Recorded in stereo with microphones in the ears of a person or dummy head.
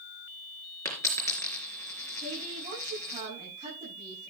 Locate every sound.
0.8 s a dropped coin: 15° left (ahead or behind), 4 m
2.2 s a woman speaking: 35° right (ahead or behind), 9 m